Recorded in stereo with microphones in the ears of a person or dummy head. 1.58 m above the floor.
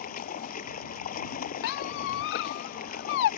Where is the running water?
55° left (ahead or behind).